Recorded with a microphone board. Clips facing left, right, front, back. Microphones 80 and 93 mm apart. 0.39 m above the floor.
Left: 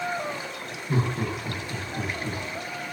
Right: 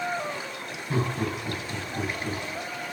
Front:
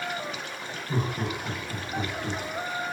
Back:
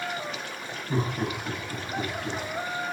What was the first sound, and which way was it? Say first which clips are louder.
Laughter: even, back 2 dB; 125° left.